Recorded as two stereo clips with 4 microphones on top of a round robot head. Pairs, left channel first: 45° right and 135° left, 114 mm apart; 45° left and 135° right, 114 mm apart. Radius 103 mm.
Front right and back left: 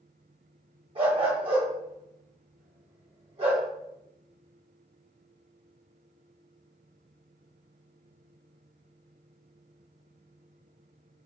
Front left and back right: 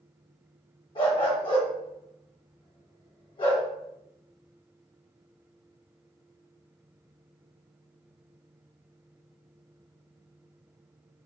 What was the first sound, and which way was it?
A dog barking, 90° left.